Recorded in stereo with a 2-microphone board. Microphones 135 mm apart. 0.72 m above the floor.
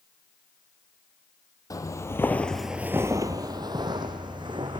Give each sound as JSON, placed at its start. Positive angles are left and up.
{"t": 1.7, "sound": "footsteps", "side_deg": 25, "distance_m": 1.2}